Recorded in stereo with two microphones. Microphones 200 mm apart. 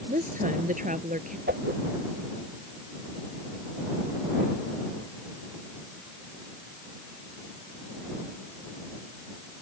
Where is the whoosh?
55° right (ahead or behind).